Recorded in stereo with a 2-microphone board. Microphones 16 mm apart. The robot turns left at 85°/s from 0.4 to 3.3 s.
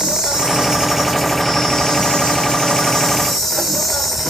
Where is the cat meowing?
I don't hear a cat meowing.